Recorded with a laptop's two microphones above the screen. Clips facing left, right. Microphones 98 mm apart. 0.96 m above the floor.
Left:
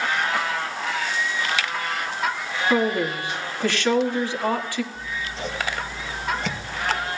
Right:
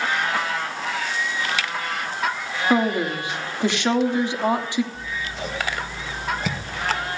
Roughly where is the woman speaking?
Centre.